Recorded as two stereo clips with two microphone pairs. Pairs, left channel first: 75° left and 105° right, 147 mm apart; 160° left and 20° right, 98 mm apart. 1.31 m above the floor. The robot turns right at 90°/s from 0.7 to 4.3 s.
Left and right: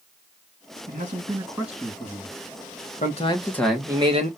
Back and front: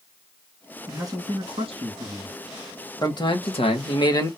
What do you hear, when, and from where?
0.9 s a man speaking: 90° right, 2.5 m; by 2.4 s 45° left, 2.5 m
3.0 s a man speaking: 105° left, 1.7 m; by 4.3 s 140° right, 1.7 m